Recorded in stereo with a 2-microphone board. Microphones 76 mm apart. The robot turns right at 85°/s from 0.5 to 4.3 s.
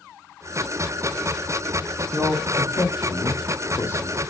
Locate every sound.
2.1 s a man speaking: 5° right (ahead or behind), 4 m; by 4.2 s 10° left (ahead or behind), 4 m